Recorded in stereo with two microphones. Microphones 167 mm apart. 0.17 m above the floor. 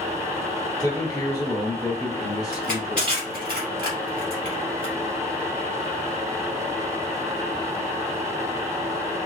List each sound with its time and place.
0.8 s a man speaking: 25° left (ahead or behind), 1.1 m
2.5 s crushing: 70° left (ahead or behind), 2.5 m